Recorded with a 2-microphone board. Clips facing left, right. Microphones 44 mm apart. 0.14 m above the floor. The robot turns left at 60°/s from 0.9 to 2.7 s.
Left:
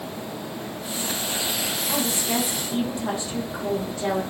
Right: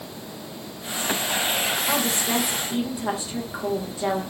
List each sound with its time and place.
1.9 s a woman speaking: 120° right, 9 m; by 4.2 s 165° right, 9 m